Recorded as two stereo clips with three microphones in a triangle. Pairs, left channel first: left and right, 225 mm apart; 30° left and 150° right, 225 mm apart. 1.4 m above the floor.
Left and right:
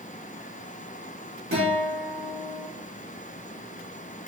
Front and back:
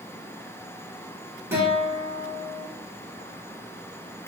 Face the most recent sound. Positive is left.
turn(degrees=-70)